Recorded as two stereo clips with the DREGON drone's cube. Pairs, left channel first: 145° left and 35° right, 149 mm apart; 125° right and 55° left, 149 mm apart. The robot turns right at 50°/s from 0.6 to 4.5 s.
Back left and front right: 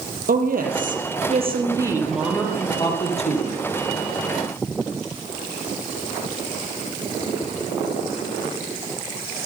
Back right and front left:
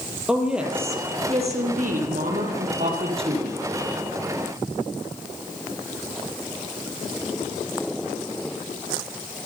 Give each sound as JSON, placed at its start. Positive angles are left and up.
{"t": 0.3, "sound": "a woman speaking", "azimuth_deg": -25, "distance_m": 6.0}